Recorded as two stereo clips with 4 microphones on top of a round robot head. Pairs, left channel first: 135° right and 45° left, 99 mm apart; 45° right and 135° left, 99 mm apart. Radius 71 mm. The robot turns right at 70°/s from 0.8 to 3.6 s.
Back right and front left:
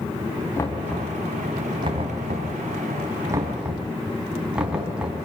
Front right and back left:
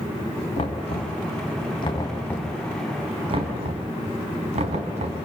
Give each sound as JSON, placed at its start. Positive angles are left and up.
{"t": 0.6, "sound": "knocking", "azimuth_deg": -70, "distance_m": 4.0}